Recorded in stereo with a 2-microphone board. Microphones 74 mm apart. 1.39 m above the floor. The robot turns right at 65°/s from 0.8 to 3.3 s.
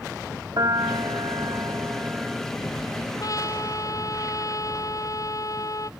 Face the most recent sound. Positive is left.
turn(degrees=45)  # may be behind; listen again after turning